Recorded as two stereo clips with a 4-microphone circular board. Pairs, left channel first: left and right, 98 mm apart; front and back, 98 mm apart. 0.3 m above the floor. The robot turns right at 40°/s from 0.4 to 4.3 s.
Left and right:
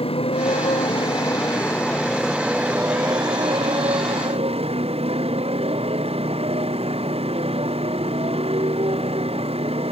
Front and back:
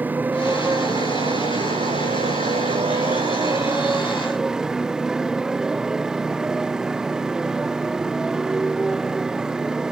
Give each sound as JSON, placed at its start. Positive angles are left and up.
{"t": 0.0, "sound": "a motorcycle", "azimuth_deg": 105}